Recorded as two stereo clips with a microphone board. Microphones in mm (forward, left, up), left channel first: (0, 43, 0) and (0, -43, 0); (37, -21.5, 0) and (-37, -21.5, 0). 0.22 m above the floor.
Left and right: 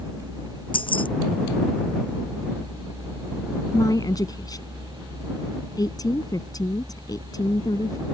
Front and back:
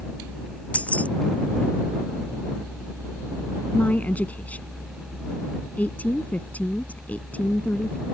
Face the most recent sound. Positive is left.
turn(degrees=65)